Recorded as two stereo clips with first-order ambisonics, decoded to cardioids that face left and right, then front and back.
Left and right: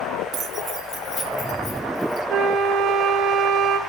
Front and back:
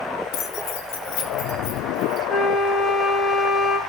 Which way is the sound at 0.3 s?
30° right.